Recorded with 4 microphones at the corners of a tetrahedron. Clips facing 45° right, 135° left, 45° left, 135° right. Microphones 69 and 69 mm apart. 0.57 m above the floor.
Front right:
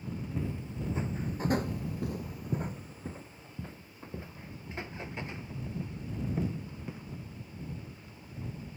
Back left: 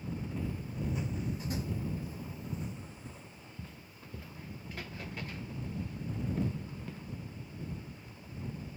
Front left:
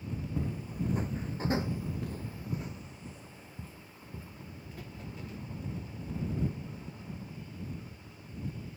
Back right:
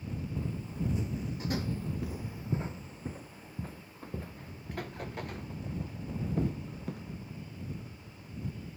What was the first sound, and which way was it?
Footsteps, 25° left.